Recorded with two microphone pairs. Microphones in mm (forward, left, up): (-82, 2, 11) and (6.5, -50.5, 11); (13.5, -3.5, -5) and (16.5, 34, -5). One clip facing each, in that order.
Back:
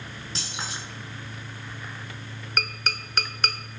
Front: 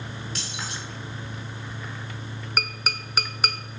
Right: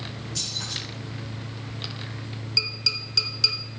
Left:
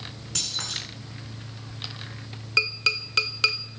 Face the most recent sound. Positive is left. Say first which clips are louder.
# even, left 6 dB
turn(degrees=55)